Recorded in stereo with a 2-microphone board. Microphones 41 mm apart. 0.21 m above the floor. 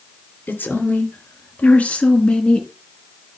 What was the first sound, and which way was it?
A woman speaking, 60° left (ahead or behind).